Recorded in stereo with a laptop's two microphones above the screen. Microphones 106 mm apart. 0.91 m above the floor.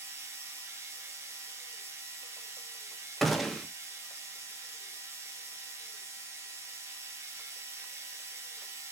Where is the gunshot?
Centre (ahead or behind), 0.5 m.